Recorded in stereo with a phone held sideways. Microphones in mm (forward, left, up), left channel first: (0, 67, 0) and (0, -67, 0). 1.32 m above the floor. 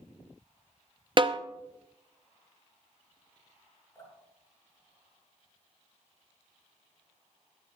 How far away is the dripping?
About 7 m.